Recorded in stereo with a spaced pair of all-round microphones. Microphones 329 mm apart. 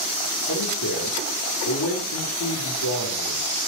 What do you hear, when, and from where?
0.5 s a man speaking: 75° left (ahead or behind), 4.5 m